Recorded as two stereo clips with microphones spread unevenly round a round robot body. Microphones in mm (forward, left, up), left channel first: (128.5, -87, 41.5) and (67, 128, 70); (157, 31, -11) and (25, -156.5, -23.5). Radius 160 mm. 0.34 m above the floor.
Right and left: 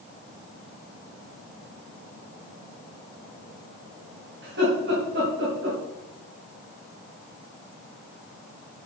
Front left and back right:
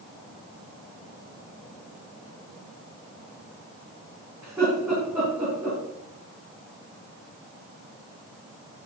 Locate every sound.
4.4 s laughter: 150° left, 3 m